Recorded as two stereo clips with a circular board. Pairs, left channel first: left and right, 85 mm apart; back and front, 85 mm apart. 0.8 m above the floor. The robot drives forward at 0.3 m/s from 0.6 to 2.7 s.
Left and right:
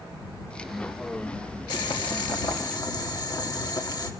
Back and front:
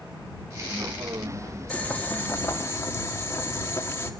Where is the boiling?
110° left, 1.2 m; by 4.1 s 125° left, 1.3 m.